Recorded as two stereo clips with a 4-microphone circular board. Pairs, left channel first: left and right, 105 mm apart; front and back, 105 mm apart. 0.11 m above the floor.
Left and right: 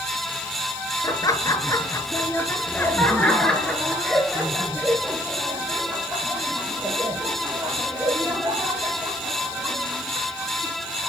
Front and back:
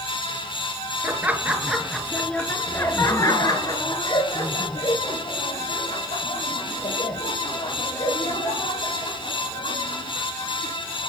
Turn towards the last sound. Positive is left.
turn(degrees=-20)